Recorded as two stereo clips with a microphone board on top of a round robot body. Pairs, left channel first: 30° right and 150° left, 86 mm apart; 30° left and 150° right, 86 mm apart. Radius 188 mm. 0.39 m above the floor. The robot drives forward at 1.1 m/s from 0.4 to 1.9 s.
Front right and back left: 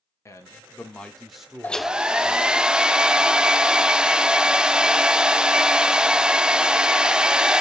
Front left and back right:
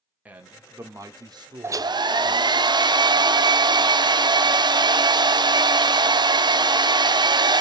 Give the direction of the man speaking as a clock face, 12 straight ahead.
3 o'clock.